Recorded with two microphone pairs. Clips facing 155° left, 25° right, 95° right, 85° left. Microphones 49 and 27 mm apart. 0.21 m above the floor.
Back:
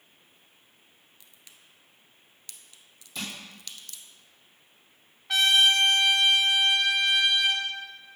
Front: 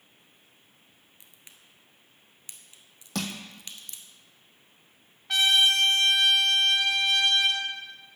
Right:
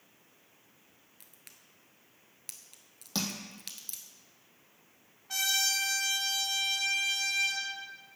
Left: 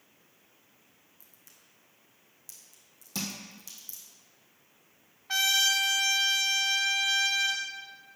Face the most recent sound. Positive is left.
turn(degrees=65)